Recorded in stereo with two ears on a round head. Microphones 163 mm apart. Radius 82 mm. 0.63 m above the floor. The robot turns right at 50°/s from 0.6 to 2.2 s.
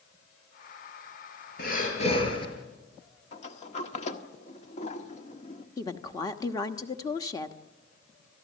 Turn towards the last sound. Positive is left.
turn(degrees=20)  # may be behind; listen again after turning